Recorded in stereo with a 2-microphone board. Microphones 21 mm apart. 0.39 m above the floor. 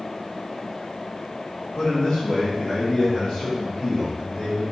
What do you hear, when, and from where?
1.8 s a man speaking: 55° left (ahead or behind), 1.3 m; by 4.6 s 40° left (ahead or behind), 4 m